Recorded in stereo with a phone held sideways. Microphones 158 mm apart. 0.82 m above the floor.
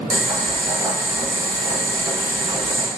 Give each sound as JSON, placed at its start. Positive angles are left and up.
{"t": 0.1, "sound": "boiling", "side_deg": 0, "distance_m": 1.4}